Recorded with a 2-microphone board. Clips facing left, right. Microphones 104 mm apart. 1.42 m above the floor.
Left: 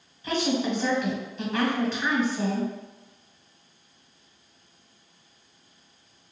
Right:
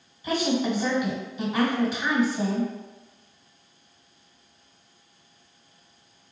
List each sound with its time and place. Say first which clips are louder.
0.2 s a woman speaking: right 1 dB; 5° right (ahead or behind), 1.2 m